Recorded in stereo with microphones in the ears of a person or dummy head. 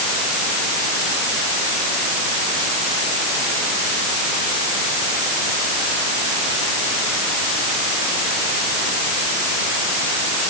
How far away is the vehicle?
I don't hear a vehicle.